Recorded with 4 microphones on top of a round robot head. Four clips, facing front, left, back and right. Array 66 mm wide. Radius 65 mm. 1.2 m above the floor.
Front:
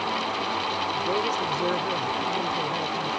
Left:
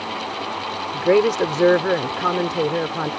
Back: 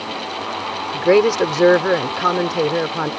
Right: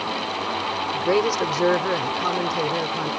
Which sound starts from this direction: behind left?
A woman speaking, at 0.9 s.